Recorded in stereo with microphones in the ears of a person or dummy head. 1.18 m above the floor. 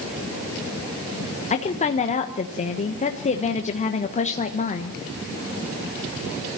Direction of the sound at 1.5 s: 35° left (ahead or behind).